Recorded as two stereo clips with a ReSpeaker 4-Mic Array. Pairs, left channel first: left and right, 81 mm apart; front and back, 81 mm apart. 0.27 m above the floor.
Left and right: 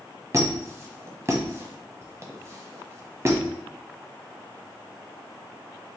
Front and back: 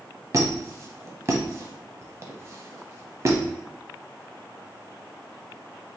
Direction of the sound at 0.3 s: 135° right.